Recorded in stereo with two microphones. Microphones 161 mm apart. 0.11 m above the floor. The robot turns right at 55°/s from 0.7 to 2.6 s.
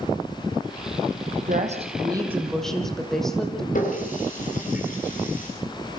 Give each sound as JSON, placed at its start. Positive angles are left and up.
{"t": 1.4, "sound": "a woman speaking", "azimuth_deg": -65, "distance_m": 5.5}
{"t": 3.8, "sound": "a running tap", "side_deg": 55, "distance_m": 8.5}